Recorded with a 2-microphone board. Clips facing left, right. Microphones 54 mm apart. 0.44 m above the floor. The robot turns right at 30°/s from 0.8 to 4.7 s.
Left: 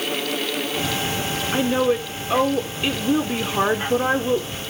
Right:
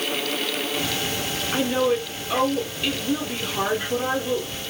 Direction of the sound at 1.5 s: 10° left (ahead or behind).